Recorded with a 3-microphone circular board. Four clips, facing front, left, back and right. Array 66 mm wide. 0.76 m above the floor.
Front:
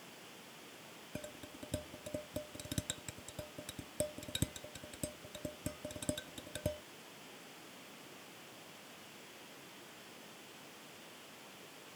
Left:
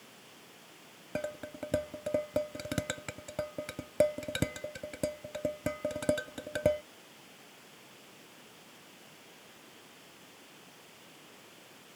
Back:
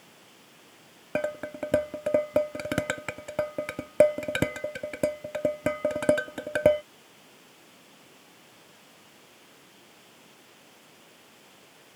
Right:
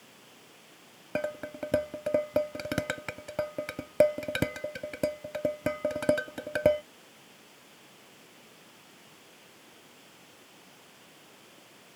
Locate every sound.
1.1 s dishes clattering: 160° right